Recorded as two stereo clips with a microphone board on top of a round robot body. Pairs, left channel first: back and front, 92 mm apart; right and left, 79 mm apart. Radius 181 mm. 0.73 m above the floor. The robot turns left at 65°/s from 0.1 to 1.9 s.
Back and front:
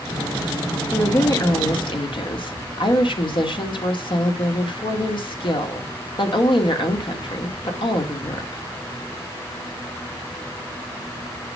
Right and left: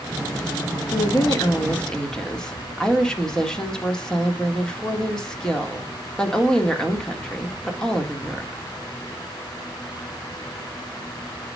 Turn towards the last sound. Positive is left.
turn(degrees=-170)